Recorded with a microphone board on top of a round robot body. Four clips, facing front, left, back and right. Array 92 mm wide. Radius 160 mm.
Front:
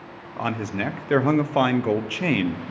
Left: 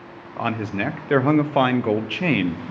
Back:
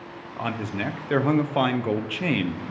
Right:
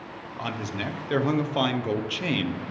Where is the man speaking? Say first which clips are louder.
Left 7 dB, front 2 dB; 65° left, 0.6 m.